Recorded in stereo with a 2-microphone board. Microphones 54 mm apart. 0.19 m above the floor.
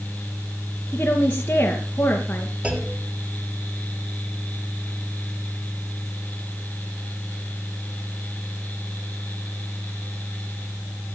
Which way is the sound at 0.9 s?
30° left (ahead or behind).